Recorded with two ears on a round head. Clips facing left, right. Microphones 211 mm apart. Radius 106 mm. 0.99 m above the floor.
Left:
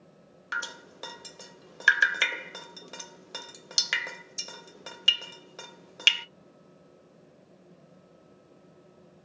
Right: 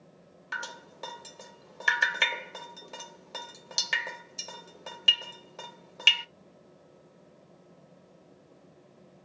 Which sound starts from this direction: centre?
Dripping, at 0.5 s.